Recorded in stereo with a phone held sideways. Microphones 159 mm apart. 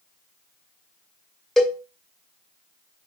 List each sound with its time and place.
1.6 s a cowbell: centre (ahead or behind), 1.0 m